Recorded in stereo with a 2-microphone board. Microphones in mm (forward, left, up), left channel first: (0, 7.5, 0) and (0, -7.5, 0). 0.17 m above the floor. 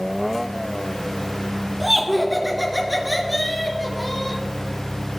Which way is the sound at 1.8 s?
5° right (ahead or behind).